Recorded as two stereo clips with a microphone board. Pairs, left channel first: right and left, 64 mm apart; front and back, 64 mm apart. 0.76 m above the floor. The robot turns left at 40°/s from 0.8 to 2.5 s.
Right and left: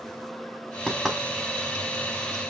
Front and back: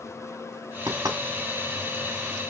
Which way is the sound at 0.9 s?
175° right.